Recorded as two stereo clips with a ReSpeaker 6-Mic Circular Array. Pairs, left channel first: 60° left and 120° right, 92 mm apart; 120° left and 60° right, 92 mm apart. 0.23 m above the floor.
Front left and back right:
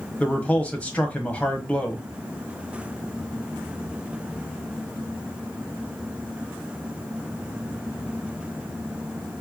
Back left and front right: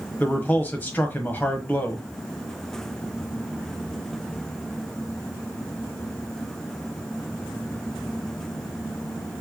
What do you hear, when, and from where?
0.2 s a man speaking: 100° left, 1.2 m